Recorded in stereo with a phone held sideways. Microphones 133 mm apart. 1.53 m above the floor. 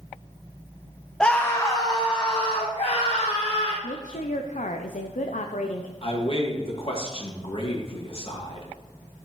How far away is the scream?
About 0.6 m.